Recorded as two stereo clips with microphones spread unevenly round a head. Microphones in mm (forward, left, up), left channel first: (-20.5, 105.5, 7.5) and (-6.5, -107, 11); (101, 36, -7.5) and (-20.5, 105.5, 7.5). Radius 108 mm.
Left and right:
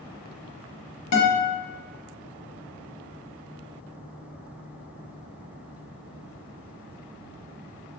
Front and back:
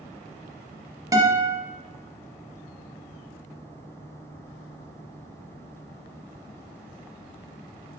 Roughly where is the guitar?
Left.